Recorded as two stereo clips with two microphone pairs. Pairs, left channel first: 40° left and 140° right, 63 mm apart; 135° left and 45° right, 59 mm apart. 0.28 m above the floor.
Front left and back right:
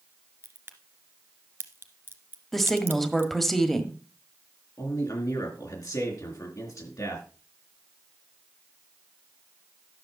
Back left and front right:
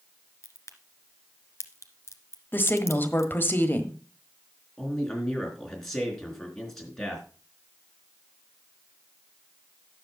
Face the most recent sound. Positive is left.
turn(degrees=50)